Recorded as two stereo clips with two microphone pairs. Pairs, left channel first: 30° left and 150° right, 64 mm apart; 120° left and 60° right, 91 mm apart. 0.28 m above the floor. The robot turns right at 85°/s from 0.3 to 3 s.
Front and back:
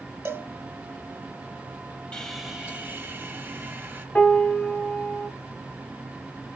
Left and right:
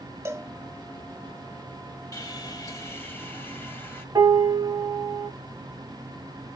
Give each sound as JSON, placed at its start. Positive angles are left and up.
{"t": 0.2, "sound": "a cowbell", "azimuth_deg": -110, "distance_m": 0.6}
{"t": 2.1, "sound": "sawing", "azimuth_deg": 95, "distance_m": 1.0}
{"t": 4.2, "sound": "a piano", "azimuth_deg": -25, "distance_m": 1.1}